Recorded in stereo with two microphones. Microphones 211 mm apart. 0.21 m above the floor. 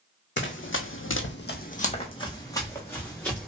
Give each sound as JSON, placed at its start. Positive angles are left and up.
{"t": 0.4, "sound": "running footsteps", "side_deg": 60, "distance_m": 0.7}